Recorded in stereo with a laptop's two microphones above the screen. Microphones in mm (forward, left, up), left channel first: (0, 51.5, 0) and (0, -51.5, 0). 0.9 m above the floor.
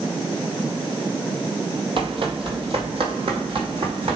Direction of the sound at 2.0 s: 60° right (ahead or behind).